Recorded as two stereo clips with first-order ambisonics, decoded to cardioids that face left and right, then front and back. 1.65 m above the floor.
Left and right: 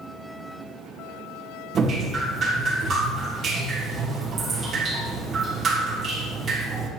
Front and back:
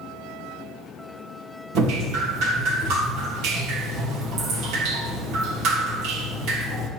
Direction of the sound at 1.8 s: 150° right.